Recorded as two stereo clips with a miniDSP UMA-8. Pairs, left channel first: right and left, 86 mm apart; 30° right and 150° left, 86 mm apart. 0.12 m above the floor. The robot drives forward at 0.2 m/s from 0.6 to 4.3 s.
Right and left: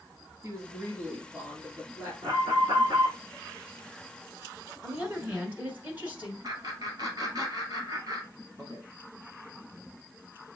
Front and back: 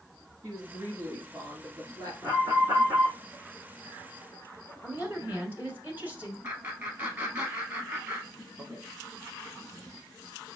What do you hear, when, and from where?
0.4 s a woman speaking: 125° left, 2.5 m; by 2.1 s 135° left, 2.5 m
2.2 s an alarm: 105° left, 3 m
4.8 s a woman speaking: 130° left, 1.1 m
6.4 s laughter: 90° left, 2 m